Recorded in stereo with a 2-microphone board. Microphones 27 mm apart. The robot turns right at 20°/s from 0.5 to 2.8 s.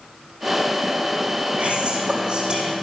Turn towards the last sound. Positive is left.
turn(degrees=-35)  # may be behind; listen again after turning